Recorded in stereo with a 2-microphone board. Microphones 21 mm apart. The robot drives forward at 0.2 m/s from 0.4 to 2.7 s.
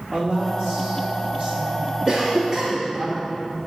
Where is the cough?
35° right (ahead or behind), 0.7 m; by 2.9 s 30° right (ahead or behind), 0.8 m.